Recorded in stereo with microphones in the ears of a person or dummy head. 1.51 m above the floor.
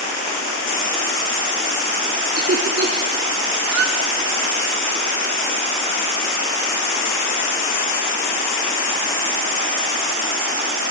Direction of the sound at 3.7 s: 65° right (ahead or behind).